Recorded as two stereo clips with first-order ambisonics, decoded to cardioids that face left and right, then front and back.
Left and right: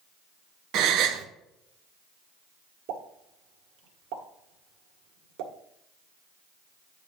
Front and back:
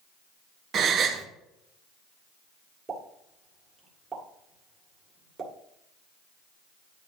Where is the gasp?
125° right, 0.9 m.